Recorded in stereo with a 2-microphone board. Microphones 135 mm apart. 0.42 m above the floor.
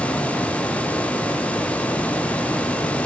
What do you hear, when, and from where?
Only background noise.